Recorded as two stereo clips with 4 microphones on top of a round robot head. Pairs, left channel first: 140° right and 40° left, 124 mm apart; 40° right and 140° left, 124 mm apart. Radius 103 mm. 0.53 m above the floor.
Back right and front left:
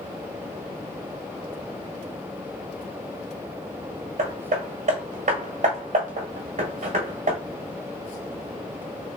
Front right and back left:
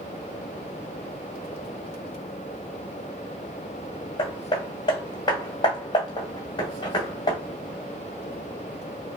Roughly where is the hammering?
Ahead.